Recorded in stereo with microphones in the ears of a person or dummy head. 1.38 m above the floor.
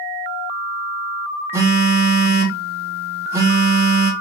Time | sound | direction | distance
1.5 | a phone buzzing | 10° right (ahead or behind) | 0.7 m